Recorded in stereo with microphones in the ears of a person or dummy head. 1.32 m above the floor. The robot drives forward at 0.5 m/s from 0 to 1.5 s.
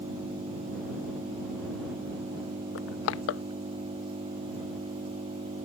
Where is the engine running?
35° right (ahead or behind).